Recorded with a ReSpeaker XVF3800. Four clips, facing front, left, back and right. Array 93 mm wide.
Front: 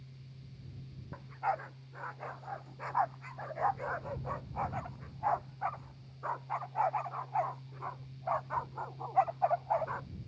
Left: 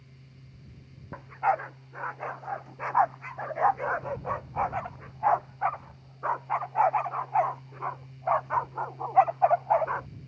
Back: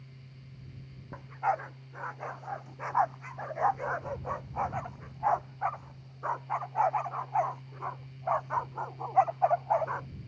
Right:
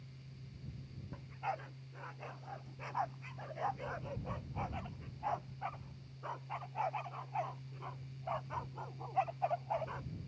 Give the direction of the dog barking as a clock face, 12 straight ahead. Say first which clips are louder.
Left 15 dB, back 4 dB; 8 o'clock.